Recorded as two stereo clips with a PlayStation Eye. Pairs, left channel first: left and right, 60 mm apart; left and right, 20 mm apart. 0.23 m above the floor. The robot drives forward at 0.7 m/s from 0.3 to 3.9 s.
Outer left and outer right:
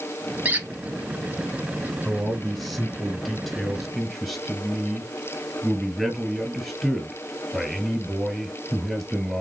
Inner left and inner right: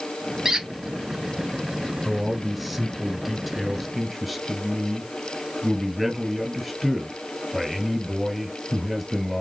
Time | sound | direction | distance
0.5 | a squeak | 25° right (ahead or behind) | 1.2 m
2.0 | a man speaking | centre (ahead or behind) | 2 m